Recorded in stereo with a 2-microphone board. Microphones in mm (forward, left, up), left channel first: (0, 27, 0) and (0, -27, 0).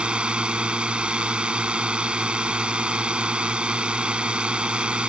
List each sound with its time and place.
0.0 s a drone: 20° right (ahead or behind)